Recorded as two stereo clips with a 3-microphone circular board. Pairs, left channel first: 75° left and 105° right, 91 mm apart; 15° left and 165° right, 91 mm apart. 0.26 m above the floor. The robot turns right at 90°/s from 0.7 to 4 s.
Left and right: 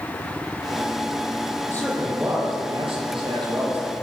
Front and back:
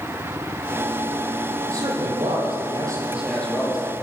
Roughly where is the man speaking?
Behind left.